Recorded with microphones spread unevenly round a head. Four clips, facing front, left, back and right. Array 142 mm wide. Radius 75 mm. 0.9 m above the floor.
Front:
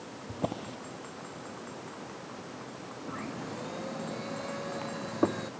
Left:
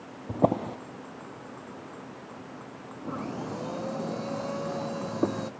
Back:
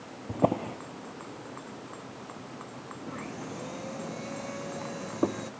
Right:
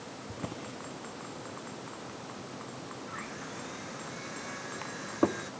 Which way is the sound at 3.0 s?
90° left.